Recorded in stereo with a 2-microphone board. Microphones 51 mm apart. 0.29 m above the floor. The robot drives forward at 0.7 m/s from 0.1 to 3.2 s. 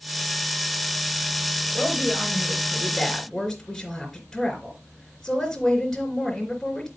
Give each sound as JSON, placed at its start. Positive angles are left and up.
{"t": 1.7, "sound": "a woman speaking", "side_deg": 5, "distance_m": 4.5}